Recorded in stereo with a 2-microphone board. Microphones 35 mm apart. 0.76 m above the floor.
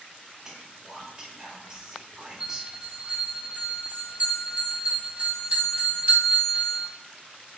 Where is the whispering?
15° right (ahead or behind), 0.5 m.